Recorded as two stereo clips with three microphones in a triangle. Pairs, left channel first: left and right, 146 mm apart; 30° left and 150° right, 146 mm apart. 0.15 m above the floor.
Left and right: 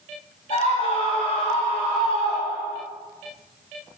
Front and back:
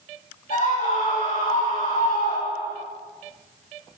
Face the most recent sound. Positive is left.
turn(degrees=35)